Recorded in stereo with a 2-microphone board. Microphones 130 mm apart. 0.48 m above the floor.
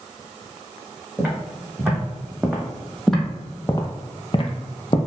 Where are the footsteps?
15° right (ahead or behind), 1.8 m; by 5.0 s 45° left (ahead or behind), 0.8 m.